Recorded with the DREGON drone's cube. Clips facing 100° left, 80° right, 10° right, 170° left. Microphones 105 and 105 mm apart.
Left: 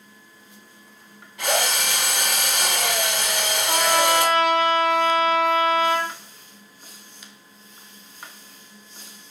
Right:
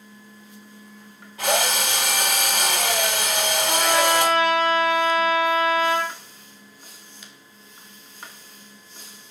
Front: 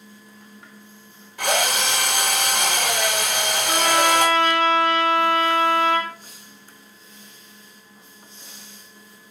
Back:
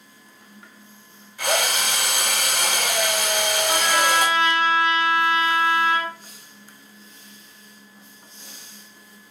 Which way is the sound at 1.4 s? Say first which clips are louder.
Right 1 dB, front 1 dB; 20° right.